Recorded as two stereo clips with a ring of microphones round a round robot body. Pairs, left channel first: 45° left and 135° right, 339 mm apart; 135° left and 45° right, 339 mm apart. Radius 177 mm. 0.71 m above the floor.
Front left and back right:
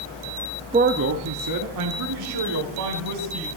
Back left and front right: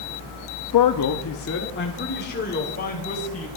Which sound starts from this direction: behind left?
A man speaking, at 0.7 s.